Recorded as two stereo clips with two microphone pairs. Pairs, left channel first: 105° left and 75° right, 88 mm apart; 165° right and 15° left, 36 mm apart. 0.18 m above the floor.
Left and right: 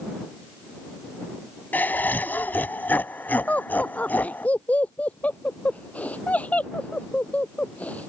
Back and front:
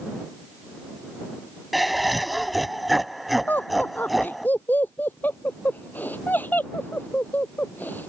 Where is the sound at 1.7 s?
105° left.